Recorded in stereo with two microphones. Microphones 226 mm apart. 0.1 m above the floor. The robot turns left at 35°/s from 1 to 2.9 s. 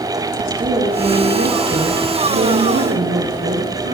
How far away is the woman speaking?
About 3 m.